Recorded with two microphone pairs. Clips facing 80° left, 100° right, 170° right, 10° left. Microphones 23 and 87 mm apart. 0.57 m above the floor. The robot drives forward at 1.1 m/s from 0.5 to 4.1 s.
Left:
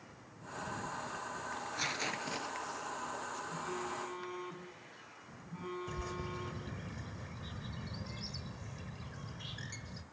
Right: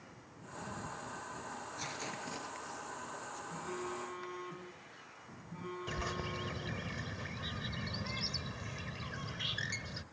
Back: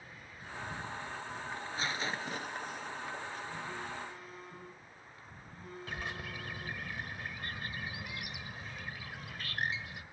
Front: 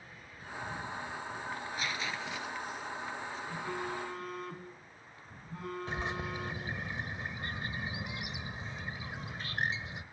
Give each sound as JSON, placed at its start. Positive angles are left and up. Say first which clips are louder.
{"t": 1.5, "sound": "tearing paper", "louder": "left 7 dB, back 2 dB", "azimuth_deg": 120, "distance_m": 1.8}
{"t": 3.5, "sound": "a phone buzzing", "louder": "right 1 dB, front 4 dB", "azimuth_deg": -10, "distance_m": 4.5}
{"t": 5.9, "sound": "a bird", "louder": "right 2 dB, front 3 dB", "azimuth_deg": -55, "distance_m": 1.2}